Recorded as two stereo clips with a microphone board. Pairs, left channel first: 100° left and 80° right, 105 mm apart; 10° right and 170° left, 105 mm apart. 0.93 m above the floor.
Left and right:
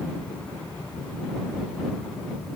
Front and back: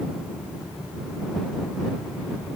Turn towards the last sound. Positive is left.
No sound to turn to.